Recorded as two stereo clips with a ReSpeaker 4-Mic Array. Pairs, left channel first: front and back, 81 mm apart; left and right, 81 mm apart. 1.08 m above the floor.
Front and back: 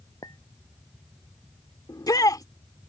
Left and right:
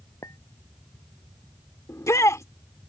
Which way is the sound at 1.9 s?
40° left.